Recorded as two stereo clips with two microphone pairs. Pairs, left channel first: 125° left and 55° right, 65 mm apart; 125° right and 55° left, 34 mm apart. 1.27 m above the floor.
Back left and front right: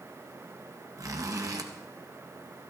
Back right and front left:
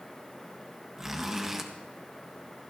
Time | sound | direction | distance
1.0 | a zipper | 25° right | 1.3 m